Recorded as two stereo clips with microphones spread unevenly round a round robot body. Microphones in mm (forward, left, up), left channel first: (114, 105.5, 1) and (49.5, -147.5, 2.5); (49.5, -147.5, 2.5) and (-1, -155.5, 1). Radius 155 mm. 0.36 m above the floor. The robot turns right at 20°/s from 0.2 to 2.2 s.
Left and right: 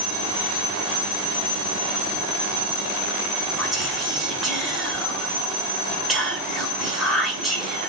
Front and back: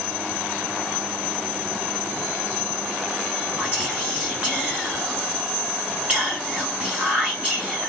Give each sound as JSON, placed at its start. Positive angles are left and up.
{"t": 3.6, "sound": "whispering", "azimuth_deg": 165, "distance_m": 1.1}